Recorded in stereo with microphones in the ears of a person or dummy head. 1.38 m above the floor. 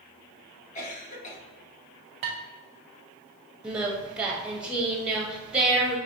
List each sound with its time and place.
0.8 s a cough: 40° left (ahead or behind), 1.3 m
2.2 s dishes clattering: 35° right (ahead or behind), 0.6 m
3.6 s singing: 5° right (ahead or behind), 0.9 m